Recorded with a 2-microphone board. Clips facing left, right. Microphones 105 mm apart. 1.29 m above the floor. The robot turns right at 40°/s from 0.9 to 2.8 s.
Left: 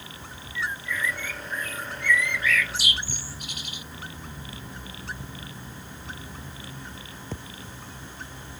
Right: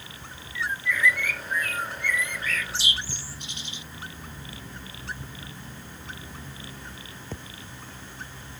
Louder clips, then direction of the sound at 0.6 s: Right 2 dB; 105° right.